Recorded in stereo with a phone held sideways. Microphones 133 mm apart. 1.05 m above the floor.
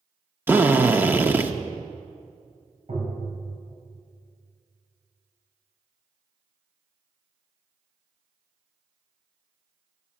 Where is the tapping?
65° right (ahead or behind), 7 m.